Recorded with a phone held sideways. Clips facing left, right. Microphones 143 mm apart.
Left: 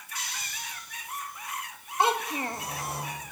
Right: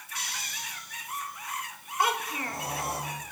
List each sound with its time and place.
0.1 s snoring: 70° right (ahead or behind), 4 m
2.0 s a child speaking: 25° left (ahead or behind), 0.9 m